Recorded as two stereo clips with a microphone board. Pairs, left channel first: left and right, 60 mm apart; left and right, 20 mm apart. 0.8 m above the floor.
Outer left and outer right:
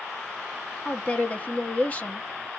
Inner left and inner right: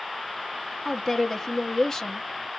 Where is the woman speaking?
25° left (ahead or behind), 1.0 m.